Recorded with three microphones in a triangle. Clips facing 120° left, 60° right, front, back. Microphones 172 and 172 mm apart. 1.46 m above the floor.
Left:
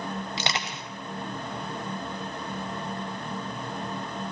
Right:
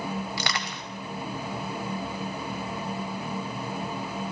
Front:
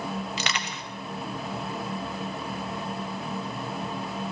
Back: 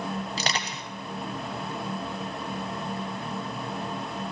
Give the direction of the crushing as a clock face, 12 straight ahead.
6 o'clock.